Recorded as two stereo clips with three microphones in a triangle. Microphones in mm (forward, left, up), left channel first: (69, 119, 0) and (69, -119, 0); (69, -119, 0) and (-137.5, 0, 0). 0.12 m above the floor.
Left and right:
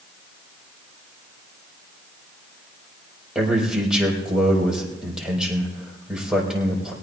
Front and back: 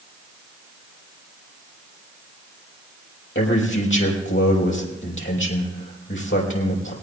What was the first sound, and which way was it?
A man speaking, 5° right.